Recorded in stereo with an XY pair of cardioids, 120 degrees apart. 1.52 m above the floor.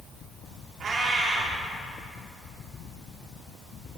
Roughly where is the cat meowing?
Ahead right.